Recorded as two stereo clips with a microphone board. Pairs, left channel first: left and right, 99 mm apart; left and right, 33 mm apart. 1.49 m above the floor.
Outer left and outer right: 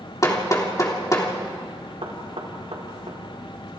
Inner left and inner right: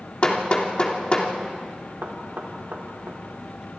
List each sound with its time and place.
0.2 s hammering: 35° left (ahead or behind), 3 m
2.0 s knocking: 80° right, 4 m